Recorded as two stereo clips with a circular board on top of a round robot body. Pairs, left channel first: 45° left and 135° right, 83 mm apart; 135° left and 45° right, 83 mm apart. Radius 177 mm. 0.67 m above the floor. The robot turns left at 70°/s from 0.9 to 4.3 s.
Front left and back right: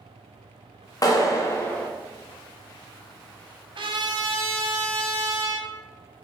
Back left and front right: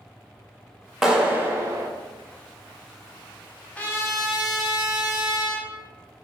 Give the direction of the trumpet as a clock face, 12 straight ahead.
5 o'clock.